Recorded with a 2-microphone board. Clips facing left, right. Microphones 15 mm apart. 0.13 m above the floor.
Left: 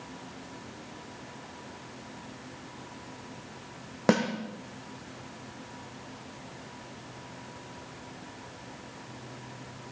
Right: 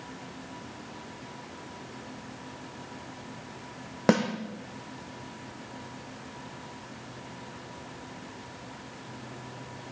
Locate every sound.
4.1 s a snare drum: centre (ahead or behind), 2.5 m